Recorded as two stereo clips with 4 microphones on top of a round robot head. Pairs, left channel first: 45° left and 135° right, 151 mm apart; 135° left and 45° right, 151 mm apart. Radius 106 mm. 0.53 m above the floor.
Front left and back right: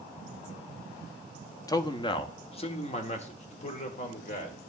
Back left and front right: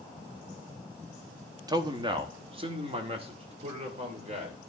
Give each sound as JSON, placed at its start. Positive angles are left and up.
{"t": 1.7, "sound": "a man speaking", "azimuth_deg": -5, "distance_m": 0.8}